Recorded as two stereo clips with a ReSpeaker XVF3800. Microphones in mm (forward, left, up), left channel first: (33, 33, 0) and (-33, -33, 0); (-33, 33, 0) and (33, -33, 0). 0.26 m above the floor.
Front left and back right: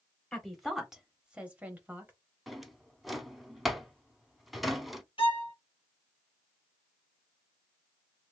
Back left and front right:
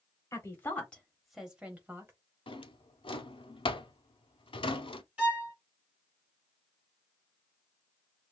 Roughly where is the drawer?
Behind left.